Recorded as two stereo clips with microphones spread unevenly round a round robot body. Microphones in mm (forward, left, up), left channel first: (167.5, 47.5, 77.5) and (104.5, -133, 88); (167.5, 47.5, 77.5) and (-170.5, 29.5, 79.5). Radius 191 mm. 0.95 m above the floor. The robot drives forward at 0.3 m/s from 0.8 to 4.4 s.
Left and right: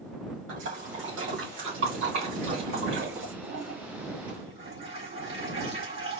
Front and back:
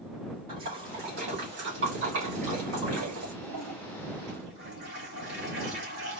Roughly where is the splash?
Behind right.